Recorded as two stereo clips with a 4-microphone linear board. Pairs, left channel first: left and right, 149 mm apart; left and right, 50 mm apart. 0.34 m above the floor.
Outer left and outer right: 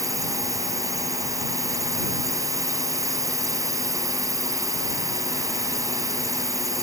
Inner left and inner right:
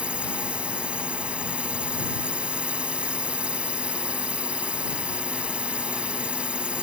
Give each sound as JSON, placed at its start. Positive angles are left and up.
{"t": 0.0, "sound": "a drone", "side_deg": -20}